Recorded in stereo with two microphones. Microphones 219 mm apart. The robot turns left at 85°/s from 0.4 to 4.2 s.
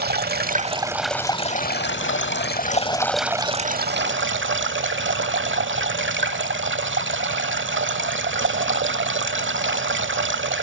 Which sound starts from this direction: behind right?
Running water, at 0.0 s.